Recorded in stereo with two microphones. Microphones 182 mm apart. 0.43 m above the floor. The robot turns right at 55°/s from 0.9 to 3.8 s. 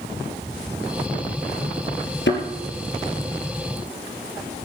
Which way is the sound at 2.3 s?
90° left.